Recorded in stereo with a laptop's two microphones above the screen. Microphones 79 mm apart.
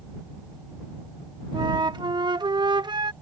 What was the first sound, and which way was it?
A flute, 70° right (ahead or behind).